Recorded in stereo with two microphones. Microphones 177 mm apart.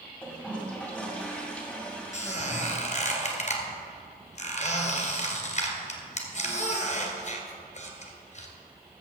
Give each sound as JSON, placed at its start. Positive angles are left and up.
{"t": 0.2, "sound": "a toilet flushing", "side_deg": 5, "distance_m": 2.0}
{"t": 2.1, "sound": "a squeak", "side_deg": 45, "distance_m": 1.8}